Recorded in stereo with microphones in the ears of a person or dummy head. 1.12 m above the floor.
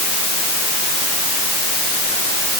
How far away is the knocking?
No knocking in this recording.